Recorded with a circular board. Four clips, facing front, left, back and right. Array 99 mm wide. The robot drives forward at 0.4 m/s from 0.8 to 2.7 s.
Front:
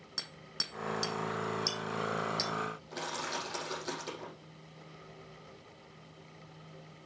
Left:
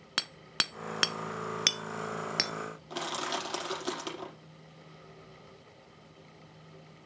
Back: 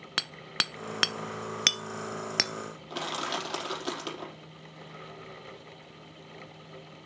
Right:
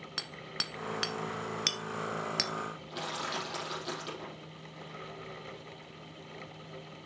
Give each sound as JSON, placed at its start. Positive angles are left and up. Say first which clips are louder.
{"t": 0.2, "sound": "hammering", "louder": "left 6 dB, back 12 dB", "azimuth_deg": 145, "distance_m": 0.6}
{"t": 2.9, "sound": "crushing", "louder": "left 4 dB, back 4 dB", "azimuth_deg": 145, "distance_m": 5.0}